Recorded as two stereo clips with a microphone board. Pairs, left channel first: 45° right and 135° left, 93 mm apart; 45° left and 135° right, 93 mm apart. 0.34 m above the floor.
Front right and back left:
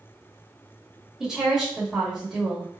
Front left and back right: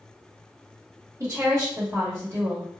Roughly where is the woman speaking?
Behind right.